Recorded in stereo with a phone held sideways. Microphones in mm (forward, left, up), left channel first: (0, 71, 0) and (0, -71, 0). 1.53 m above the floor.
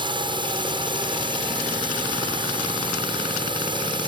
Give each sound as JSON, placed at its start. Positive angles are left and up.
{"t": 0.0, "sound": "a drone", "side_deg": -35}